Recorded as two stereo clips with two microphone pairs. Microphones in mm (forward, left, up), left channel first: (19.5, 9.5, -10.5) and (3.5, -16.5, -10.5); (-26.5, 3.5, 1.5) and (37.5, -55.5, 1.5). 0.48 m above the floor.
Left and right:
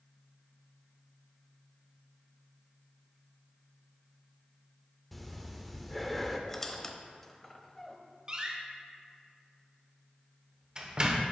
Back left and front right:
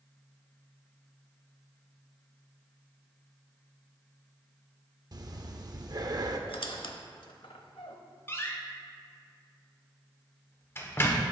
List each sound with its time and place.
5.1 s breathing: 30° right, 0.7 m
6.5 s a squeak: 135° left, 0.7 m
8.3 s a door slam: 170° right, 1.0 m